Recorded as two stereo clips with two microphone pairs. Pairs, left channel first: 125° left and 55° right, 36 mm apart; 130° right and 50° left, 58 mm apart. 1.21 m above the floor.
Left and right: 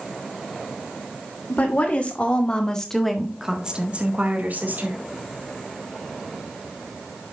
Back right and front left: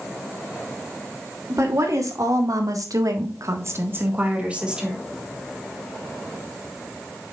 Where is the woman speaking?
80° left, 3 m; by 5.0 s 35° right, 2.5 m.